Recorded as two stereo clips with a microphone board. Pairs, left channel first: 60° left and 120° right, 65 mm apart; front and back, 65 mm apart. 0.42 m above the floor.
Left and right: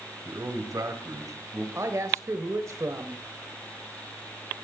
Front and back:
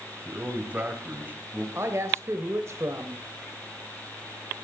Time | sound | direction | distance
0.2 | a man speaking | 125° right | 2.5 m
1.8 | a woman speaking | 145° right | 1.5 m